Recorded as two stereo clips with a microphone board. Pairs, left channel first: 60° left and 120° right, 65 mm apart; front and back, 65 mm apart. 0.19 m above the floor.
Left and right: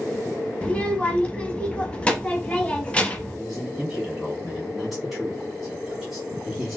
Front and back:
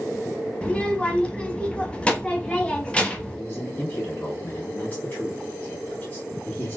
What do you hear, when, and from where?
0.6 s a child speaking: 30° left, 0.6 m
3.4 s a man speaking: 35° right, 1.9 m